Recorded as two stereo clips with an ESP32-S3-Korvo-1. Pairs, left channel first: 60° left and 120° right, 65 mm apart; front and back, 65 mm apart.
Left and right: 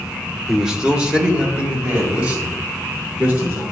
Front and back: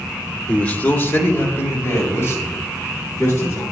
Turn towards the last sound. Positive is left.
turn(degrees=-50)